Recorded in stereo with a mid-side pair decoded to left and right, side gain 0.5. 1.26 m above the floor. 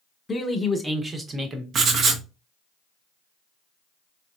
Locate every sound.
0.3 s a man speaking: 25° left, 1.1 m; by 1.6 s 50° right, 1.1 m
1.7 s writing: 60° right, 0.7 m